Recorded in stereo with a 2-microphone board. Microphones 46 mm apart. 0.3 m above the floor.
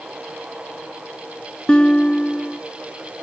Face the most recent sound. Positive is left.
turn(degrees=25)  # may be behind; listen again after turning